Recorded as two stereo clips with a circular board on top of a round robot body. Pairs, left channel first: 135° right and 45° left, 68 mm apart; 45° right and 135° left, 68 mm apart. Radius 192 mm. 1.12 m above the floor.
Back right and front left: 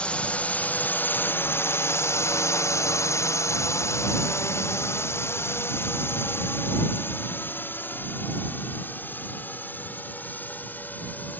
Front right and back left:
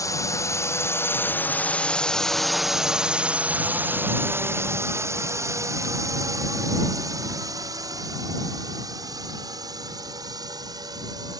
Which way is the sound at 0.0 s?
65° right.